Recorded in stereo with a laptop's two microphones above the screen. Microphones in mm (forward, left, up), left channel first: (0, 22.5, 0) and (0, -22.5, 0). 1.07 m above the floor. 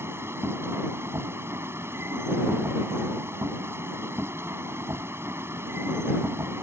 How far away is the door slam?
I don't hear a door slam.